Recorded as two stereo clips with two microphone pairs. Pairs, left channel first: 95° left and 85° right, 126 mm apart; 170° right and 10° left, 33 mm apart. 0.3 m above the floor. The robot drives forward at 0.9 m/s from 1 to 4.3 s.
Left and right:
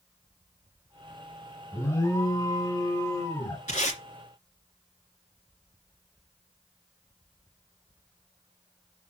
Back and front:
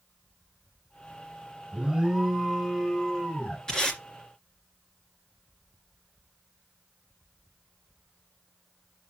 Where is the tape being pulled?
120° left, 2.5 m; by 4.0 s 125° left, 2.5 m.